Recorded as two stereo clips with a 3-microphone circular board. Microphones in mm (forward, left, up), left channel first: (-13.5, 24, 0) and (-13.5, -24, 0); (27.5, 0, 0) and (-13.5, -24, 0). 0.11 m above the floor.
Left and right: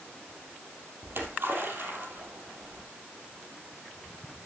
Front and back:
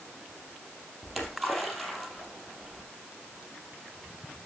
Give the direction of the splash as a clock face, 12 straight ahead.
2 o'clock.